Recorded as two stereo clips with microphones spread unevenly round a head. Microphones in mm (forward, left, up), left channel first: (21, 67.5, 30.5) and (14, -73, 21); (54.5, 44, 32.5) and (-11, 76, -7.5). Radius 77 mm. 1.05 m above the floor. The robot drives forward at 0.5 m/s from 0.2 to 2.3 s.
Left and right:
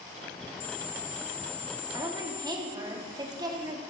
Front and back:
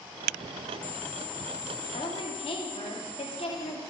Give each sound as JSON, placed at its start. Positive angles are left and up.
{"t": 1.9, "sound": "a woman speaking", "azimuth_deg": -30, "distance_m": 2.5}